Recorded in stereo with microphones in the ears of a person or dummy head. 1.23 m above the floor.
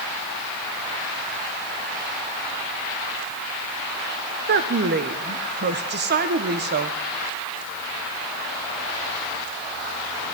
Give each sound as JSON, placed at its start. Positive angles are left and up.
{"t": 4.5, "sound": "a woman speaking", "side_deg": -45, "distance_m": 0.8}